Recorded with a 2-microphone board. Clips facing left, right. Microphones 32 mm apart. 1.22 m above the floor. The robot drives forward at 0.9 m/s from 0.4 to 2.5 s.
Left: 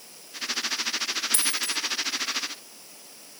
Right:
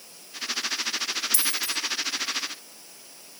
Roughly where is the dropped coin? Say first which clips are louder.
Even; left.